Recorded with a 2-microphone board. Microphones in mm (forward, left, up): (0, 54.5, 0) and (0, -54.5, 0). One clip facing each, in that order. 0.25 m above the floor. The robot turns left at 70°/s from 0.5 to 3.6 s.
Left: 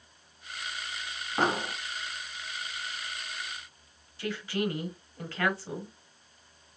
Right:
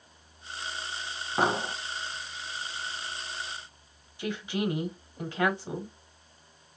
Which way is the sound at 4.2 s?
20° right (ahead or behind).